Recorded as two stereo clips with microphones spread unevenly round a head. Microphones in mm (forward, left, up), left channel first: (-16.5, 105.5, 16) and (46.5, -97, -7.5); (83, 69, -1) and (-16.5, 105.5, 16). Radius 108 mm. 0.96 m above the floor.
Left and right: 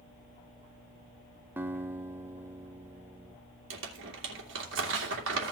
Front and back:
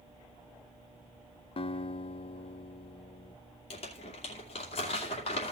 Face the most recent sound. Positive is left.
turn(degrees=-50)